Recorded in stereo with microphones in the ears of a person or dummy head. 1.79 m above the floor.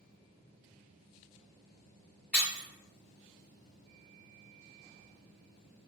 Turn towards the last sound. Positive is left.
turn(degrees=-10)  # may be behind; listen again after turning